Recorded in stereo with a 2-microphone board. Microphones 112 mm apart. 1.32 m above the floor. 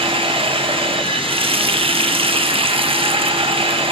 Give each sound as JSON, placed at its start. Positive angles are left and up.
{"t": 0.0, "sound": "running water", "side_deg": -55, "distance_m": 1.4}